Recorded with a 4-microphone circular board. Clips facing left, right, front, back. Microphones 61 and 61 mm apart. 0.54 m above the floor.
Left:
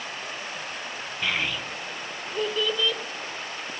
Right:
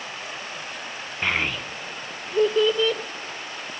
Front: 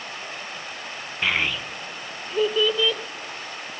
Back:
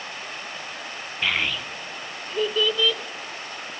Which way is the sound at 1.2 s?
75° right.